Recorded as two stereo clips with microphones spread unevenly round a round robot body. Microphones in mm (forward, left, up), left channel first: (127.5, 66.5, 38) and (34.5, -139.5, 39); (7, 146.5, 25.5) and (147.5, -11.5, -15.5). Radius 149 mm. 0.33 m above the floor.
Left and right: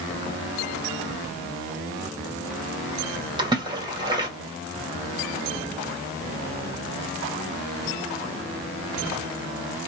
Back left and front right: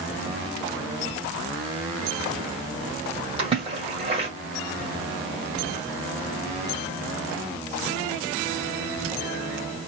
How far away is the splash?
About 1.6 m.